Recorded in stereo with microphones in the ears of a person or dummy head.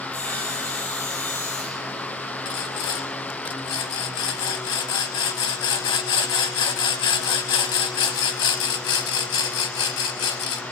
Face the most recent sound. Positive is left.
turn(degrees=25)  # may be behind; listen again after turning